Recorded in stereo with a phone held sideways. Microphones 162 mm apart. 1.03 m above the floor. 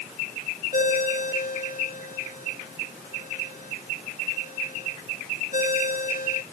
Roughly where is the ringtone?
Left.